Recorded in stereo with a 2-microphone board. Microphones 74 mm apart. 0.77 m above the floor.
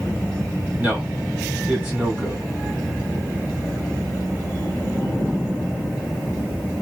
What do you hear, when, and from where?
0.8 s a man speaking: 20° right (ahead or behind), 1.8 m